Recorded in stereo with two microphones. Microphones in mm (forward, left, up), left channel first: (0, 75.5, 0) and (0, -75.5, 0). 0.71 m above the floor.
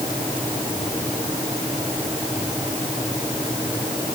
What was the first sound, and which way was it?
Only background noise.